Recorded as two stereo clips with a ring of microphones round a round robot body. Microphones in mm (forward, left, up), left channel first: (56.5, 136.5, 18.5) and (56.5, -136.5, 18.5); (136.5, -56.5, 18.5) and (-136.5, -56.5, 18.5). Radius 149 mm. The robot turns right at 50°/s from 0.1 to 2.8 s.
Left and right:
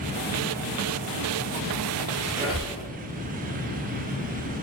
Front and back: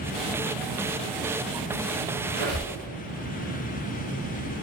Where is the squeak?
170° right, 1.1 m; by 2.8 s 140° right, 1.1 m.